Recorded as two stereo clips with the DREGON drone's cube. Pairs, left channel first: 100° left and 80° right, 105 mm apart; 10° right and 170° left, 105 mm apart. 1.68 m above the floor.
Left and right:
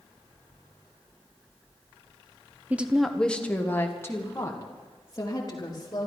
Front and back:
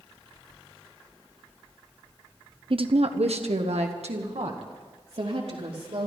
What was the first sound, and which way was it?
A woman speaking, 155° right.